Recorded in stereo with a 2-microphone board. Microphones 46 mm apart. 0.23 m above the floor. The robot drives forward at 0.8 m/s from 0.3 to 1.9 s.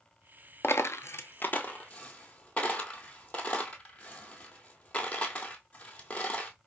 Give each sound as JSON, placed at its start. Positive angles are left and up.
{"t": 0.6, "sound": "a dropped coin", "side_deg": 65, "distance_m": 0.5}